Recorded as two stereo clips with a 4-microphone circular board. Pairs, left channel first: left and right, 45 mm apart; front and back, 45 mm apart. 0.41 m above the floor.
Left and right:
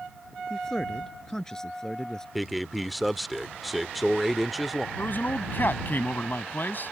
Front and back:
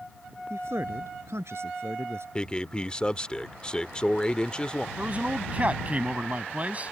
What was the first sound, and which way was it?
A man speaking, 165° left.